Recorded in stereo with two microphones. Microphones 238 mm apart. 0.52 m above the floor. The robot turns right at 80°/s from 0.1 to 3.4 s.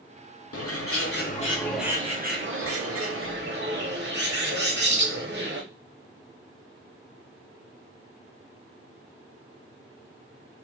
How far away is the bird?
About 0.7 m.